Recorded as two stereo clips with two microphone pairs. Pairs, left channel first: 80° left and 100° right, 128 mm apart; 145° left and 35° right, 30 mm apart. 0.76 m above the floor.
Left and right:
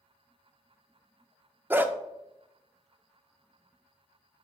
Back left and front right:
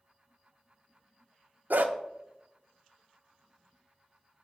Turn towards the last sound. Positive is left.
turn(degrees=-25)